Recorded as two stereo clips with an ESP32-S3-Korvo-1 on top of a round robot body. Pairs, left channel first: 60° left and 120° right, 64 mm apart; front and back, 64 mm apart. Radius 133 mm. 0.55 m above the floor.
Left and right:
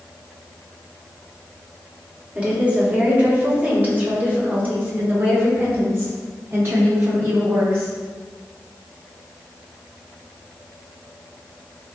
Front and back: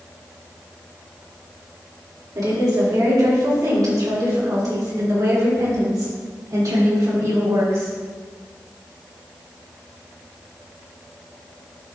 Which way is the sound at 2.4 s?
170° left.